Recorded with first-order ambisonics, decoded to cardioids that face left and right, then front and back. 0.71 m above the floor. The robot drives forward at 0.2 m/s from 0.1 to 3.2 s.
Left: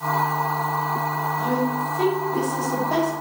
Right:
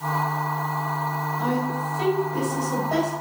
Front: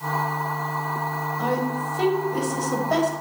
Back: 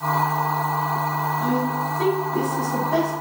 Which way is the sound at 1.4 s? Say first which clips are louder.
Left 2 dB, back 2 dB; 20° left.